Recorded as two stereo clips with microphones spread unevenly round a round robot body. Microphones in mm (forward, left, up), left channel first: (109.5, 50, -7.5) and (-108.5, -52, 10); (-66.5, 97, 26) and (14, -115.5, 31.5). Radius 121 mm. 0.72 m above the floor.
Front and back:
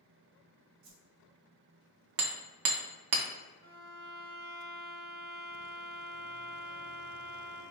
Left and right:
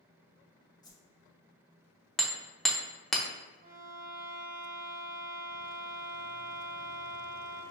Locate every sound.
0.8 s a whoosh: 175° right, 0.8 m
2.2 s hammering: 160° right, 0.8 m
3.6 s a violin: 110° right, 1.7 m